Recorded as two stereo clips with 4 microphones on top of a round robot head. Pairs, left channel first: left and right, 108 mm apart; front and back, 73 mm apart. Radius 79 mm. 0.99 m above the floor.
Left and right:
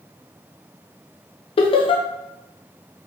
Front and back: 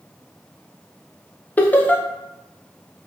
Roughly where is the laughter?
Ahead left.